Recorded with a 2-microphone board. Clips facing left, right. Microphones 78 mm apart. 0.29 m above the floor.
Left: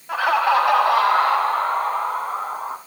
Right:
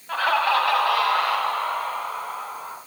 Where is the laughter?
10° left (ahead or behind), 2 m; by 2.8 s 40° left (ahead or behind), 3 m.